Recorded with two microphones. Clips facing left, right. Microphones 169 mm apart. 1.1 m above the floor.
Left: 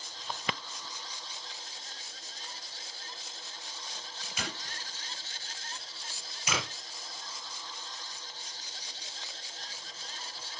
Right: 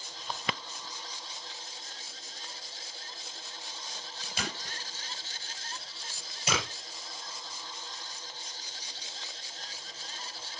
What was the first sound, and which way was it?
Tape being pulled, 30° right (ahead or behind).